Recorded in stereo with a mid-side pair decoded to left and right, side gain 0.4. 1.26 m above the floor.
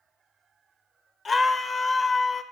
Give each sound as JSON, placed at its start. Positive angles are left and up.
{"t": 1.2, "sound": "a scream", "azimuth_deg": 40, "distance_m": 0.9}